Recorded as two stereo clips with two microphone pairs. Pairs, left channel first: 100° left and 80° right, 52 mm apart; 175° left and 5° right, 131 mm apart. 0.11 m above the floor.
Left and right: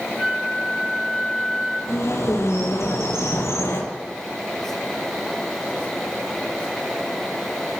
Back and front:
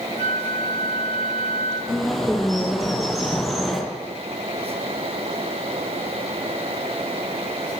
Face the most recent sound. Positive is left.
turn(degrees=85)